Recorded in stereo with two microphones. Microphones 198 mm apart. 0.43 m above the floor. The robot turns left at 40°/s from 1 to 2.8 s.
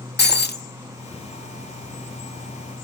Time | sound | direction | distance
0.2 | breaking glass | 55° left (ahead or behind) | 0.7 m